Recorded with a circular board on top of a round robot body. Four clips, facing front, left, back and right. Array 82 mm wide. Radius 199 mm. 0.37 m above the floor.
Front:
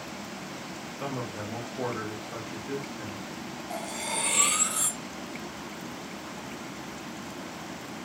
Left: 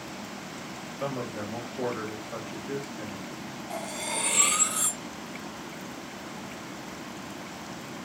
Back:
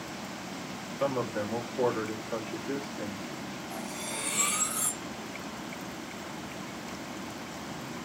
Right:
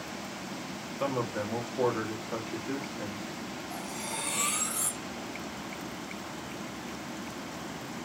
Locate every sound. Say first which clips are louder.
1.0 s a man speaking: right 2 dB, back 6 dB; 125° right, 1.1 m
3.7 s cutlery clinking: left 6 dB, front 6 dB; 45° left, 0.7 m